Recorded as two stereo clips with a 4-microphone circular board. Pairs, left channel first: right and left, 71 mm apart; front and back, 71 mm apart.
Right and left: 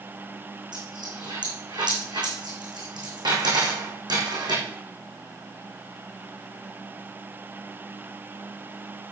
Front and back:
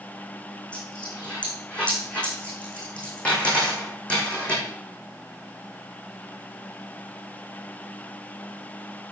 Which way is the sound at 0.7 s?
70° left.